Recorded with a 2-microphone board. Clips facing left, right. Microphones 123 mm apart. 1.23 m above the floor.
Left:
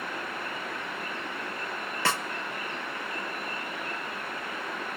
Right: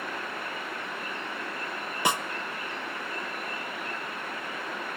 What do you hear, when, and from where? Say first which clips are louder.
2.0 s a snare drum: right 2 dB; 15° right (ahead or behind), 0.8 m